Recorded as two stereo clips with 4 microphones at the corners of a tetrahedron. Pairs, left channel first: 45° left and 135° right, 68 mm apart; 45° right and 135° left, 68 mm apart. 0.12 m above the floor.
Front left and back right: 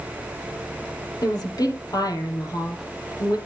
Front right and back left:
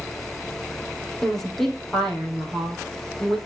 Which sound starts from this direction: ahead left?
A woman speaking, at 1.2 s.